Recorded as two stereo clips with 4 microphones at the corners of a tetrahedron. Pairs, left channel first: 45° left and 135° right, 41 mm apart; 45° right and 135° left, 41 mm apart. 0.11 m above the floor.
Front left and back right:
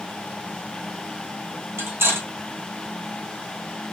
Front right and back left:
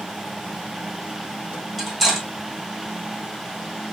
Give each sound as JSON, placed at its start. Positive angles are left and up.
{"t": 1.8, "sound": "cutlery clinking", "azimuth_deg": -130, "distance_m": 2.5}